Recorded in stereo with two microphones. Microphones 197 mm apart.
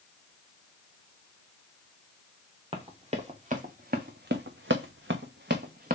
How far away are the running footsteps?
About 1.4 m.